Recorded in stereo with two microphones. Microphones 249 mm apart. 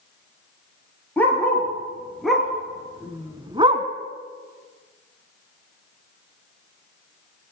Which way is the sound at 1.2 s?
5° left (ahead or behind).